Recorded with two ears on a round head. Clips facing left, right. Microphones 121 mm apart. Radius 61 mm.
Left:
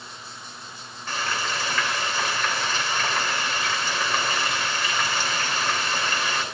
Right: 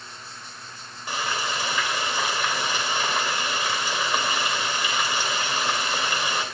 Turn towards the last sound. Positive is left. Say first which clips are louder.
# even
turn(degrees=-15)  # may be behind; listen again after turning